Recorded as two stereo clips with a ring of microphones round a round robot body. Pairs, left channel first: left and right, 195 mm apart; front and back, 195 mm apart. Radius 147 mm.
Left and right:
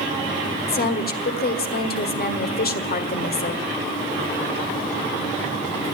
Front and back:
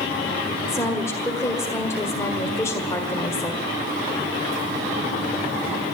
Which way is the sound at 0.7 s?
75° left.